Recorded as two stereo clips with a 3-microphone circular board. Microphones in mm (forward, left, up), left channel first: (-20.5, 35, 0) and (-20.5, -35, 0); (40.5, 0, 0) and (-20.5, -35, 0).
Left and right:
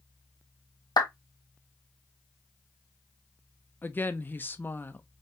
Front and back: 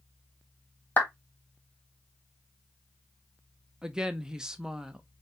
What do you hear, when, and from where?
1.0 s a clap: 90° left, 1.1 m
3.8 s a woman speaking: 135° left, 0.6 m